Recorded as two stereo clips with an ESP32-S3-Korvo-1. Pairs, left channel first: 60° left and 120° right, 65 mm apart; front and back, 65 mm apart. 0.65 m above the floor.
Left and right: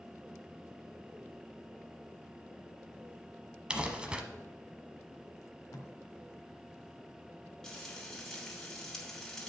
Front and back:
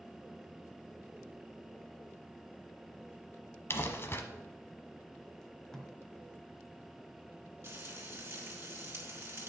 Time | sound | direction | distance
3.7 | crumpling | 45° right | 1.0 m
5.4 | tape being pulled | 80° left | 1.2 m
7.6 | frying | 140° left | 2 m